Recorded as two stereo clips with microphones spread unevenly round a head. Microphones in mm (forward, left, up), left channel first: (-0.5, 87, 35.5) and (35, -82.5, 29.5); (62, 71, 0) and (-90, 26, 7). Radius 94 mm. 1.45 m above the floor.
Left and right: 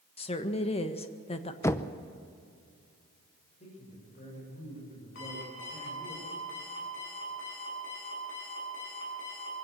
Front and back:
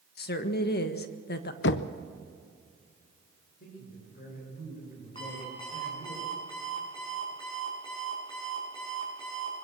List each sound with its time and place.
0.2 s a woman speaking: 45° left, 1.5 m
1.6 s knocking: 25° left, 0.8 m
3.6 s a man speaking: 50° left, 7.5 m
5.2 s an alarm clock: 80° left, 8.5 m